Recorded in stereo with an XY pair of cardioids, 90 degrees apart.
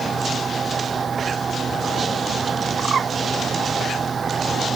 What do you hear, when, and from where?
0.0 s a fan: 45° right
2.8 s a bird: 50° right